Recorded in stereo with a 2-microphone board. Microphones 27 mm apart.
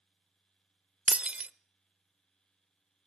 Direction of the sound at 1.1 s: 50° right (ahead or behind).